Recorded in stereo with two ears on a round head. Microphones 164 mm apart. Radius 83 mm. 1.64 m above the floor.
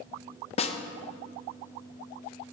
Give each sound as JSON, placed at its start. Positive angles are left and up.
{"t": 0.6, "sound": "a snare drum", "side_deg": 35, "distance_m": 0.8}